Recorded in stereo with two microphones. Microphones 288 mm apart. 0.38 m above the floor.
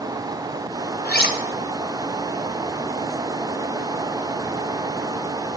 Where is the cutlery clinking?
35° left (ahead or behind), 0.5 m.